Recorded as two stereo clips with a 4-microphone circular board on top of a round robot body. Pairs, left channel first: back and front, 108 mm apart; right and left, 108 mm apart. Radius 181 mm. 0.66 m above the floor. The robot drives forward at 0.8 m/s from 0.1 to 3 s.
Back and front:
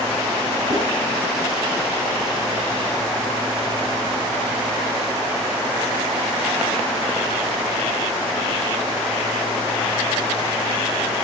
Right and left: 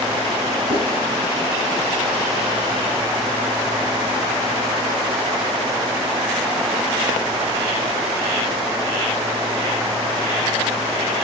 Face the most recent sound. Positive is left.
turn(degrees=60)